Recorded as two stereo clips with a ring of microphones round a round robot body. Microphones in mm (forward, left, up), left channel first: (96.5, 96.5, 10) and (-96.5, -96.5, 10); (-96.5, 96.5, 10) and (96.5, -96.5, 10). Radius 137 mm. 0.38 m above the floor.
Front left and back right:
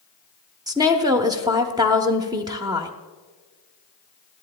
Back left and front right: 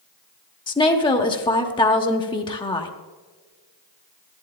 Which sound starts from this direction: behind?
A woman speaking, at 0.7 s.